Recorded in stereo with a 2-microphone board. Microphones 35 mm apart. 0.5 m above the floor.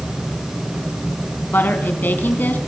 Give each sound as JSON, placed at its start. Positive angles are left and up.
{"t": 1.5, "sound": "a woman speaking", "side_deg": 65, "distance_m": 4.0}